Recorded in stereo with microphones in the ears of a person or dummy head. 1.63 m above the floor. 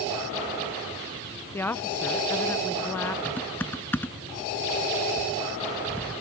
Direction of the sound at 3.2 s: 10° left (ahead or behind).